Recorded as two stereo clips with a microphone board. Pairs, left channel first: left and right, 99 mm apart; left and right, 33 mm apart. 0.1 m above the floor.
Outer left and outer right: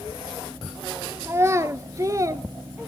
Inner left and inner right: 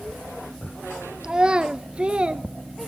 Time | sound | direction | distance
1.2 | a child speaking | 25° right (ahead or behind) | 1.4 m